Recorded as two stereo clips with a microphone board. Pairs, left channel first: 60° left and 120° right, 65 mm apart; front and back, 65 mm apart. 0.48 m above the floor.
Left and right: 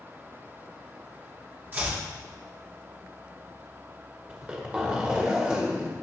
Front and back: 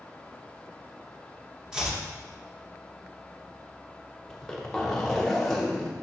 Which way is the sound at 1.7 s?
110° right.